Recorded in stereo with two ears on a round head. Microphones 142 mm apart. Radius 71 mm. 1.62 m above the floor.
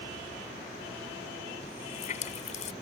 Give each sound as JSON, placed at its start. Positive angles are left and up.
{"t": 1.6, "sound": "a running tap", "side_deg": 45}